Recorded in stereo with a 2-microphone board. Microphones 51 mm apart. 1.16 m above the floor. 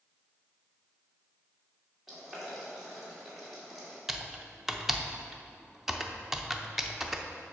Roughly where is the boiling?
Centre.